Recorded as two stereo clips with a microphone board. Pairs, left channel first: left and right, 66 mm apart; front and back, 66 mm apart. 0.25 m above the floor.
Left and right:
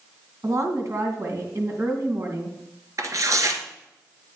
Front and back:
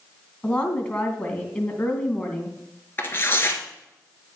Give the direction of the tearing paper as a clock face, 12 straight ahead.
2 o'clock.